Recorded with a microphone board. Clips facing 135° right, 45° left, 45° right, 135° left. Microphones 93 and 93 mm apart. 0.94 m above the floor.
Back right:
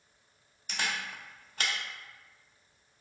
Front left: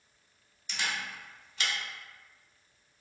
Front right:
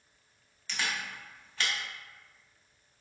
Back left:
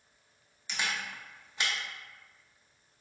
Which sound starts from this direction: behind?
A camera shutter, at 0.7 s.